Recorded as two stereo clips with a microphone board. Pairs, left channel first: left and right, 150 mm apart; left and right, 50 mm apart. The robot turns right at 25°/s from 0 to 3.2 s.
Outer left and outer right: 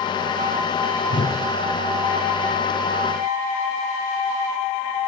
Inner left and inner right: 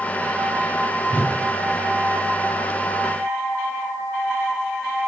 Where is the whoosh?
30° left (ahead or behind), 0.6 m.